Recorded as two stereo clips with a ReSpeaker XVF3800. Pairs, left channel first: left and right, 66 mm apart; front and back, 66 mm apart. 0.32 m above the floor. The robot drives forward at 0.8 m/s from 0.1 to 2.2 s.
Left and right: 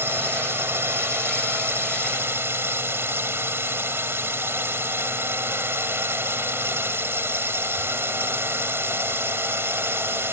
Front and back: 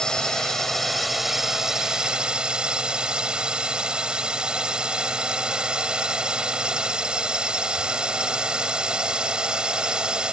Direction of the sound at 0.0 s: 70° right.